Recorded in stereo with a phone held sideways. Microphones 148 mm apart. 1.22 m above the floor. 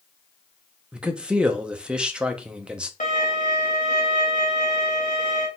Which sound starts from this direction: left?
A violin, at 3.0 s.